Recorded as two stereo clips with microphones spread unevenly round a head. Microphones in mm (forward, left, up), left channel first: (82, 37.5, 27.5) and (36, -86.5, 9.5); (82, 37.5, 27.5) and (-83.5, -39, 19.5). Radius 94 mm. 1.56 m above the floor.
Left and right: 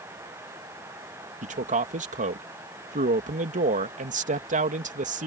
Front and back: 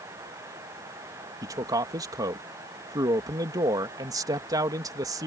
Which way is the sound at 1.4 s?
85° right.